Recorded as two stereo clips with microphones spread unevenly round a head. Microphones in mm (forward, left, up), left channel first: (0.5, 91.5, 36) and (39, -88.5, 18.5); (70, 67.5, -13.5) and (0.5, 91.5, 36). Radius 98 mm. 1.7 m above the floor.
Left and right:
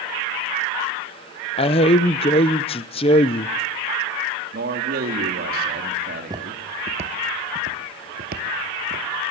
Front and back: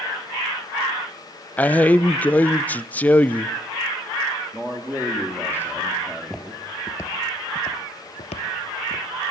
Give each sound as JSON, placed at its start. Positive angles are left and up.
{"t": 1.6, "sound": "a man speaking", "azimuth_deg": 105, "distance_m": 0.6}
{"t": 4.5, "sound": "a man speaking", "azimuth_deg": -125, "distance_m": 3.0}
{"t": 6.0, "sound": "footsteps", "azimuth_deg": -155, "distance_m": 2.5}